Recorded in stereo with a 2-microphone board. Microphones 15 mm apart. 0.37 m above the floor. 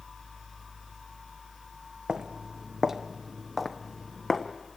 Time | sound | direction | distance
2.1 | footsteps | 70° right (ahead or behind) | 1.4 m